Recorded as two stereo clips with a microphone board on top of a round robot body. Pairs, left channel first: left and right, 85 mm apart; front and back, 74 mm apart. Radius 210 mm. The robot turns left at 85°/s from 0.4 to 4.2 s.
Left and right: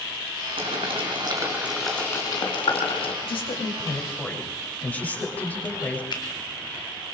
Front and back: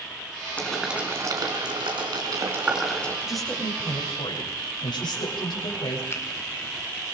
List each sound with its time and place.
0.6 s boiling: 75° right, 4.5 m; by 3.1 s 70° left, 4.5 m
3.2 s a woman speaking: 100° left, 7.5 m; by 6.0 s 20° left, 7.5 m
6.1 s a finger snap: 55° left, 3.5 m